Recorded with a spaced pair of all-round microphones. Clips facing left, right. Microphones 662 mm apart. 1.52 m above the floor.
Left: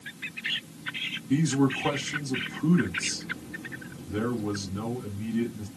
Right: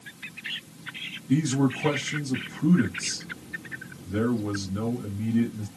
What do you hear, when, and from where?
1.3 s a man speaking: 65° right (ahead or behind), 2 m